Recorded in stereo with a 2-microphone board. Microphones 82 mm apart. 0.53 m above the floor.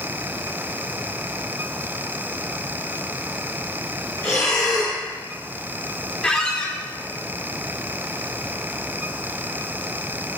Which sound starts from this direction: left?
Breathing, at 4.2 s.